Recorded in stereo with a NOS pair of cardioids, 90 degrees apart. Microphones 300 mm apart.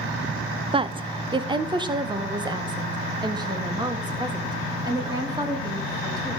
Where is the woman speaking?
20° right, 1.0 m; by 6.4 s 15° right, 6 m.